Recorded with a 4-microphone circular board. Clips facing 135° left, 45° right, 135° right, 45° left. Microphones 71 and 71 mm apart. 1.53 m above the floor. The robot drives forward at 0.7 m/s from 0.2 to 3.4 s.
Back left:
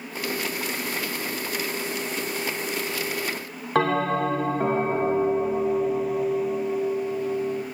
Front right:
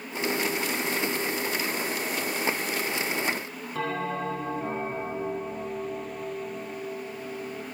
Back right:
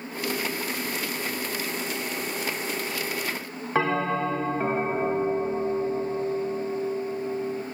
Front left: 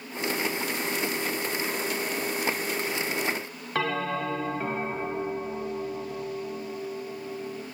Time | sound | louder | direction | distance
3.8 | a bell | back left 8 dB, back right 4 dB | 155° left | 1.4 m